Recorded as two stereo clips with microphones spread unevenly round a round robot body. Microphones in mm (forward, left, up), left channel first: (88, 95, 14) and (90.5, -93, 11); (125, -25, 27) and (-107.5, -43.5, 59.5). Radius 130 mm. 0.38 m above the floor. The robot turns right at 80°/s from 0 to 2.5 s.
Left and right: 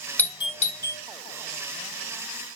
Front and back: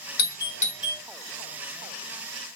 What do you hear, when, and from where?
0.2 s a doorbell: 10° left, 1.8 m; by 1.0 s 80° left, 1.8 m